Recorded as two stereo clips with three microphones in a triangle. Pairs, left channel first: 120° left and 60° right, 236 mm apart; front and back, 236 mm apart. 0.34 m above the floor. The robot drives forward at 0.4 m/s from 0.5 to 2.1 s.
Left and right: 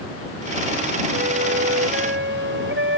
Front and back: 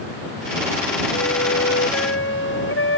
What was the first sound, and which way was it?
A flute, 25° right.